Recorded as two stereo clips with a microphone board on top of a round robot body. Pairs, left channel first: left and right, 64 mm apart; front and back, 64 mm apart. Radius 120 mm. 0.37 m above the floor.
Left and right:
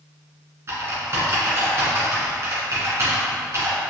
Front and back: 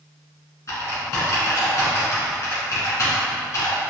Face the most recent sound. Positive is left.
turn(degrees=-45)